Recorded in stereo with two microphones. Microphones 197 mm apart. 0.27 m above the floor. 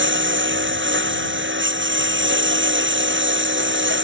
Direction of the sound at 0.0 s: 75° right (ahead or behind).